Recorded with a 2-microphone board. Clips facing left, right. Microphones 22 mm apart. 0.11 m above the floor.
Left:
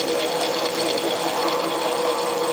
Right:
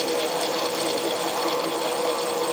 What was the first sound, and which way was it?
Only background noise.